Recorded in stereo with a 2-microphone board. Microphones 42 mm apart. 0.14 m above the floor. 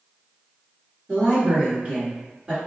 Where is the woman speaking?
30° right (ahead or behind), 1.7 m.